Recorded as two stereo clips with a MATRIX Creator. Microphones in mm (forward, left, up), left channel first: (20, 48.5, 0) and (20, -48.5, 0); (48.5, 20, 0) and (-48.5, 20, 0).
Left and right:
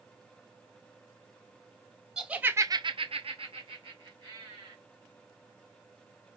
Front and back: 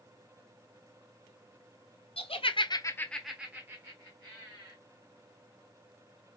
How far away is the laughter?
About 0.9 m.